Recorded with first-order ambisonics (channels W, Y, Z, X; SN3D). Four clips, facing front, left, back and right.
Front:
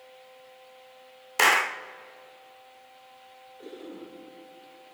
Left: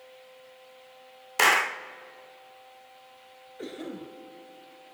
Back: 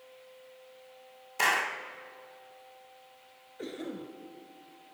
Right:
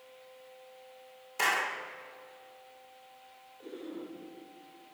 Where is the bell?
I don't hear a bell.